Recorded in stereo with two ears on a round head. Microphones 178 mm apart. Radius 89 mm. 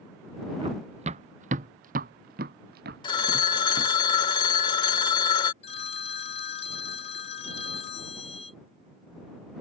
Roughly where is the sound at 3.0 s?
Left.